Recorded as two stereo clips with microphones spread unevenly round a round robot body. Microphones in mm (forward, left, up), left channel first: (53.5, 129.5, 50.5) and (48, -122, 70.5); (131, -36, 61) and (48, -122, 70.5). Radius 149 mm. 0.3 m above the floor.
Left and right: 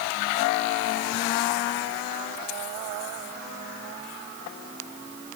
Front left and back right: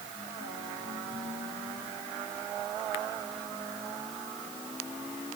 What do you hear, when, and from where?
Only background noise.